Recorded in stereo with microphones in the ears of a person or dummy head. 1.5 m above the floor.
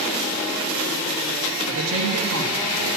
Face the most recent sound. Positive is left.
turn(degrees=-75)  # may be behind; listen again after turning